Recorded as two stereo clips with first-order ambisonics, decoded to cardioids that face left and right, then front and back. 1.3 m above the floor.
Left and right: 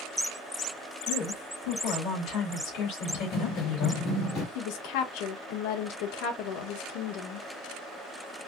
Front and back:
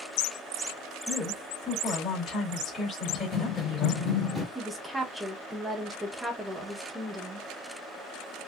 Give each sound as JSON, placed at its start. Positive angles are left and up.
{"t": 1.1, "sound": "a woman speaking", "azimuth_deg": 70, "distance_m": 3.0}
{"t": 3.1, "sound": "running footsteps", "azimuth_deg": 50, "distance_m": 1.6}
{"t": 4.5, "sound": "a woman speaking", "azimuth_deg": 95, "distance_m": 1.0}